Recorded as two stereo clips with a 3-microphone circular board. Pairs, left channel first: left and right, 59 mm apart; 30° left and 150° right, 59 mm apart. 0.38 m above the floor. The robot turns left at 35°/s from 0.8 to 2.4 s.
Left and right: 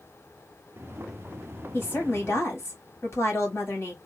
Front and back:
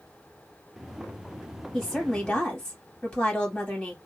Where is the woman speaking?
125° left, 1.9 m; by 4.0 s 105° left, 1.9 m.